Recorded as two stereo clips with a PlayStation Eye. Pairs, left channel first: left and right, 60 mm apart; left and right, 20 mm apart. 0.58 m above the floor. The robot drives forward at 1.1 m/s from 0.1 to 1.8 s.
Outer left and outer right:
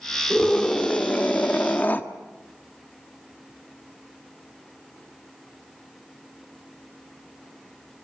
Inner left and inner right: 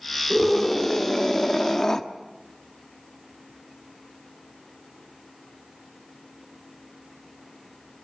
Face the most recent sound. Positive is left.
turn(degrees=25)  # may be behind; listen again after turning